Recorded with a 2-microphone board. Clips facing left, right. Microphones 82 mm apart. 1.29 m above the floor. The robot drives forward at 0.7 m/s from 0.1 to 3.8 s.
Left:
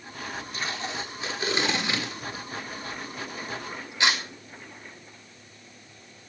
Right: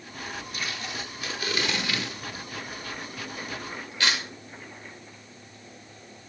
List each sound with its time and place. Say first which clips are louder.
0.5 s tape being pulled: left 4 dB; 30° left (ahead or behind), 4.5 m; by 4.2 s 20° left (ahead or behind), 6.5 m